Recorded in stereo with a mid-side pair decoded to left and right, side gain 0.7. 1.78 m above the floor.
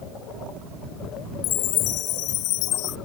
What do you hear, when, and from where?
1.4 s a chime: 65° left